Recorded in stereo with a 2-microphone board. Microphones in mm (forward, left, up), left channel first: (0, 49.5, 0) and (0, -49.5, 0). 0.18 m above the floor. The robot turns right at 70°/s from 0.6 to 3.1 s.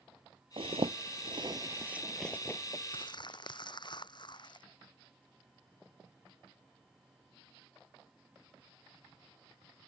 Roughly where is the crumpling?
Left.